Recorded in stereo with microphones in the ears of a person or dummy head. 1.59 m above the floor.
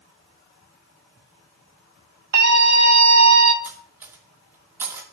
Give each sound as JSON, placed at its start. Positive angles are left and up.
{"t": 2.3, "sound": "a scream", "side_deg": -60, "distance_m": 1.3}
{"t": 3.6, "sound": "cutlery clinking", "side_deg": -10, "distance_m": 1.7}